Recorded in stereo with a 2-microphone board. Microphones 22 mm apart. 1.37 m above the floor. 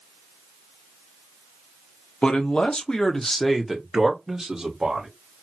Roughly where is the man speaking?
Left.